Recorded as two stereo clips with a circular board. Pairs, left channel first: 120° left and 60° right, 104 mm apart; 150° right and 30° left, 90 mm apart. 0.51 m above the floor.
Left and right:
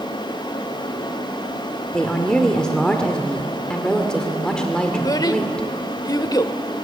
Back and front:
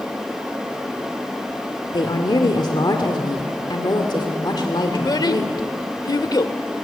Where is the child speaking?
170° left, 1.1 m.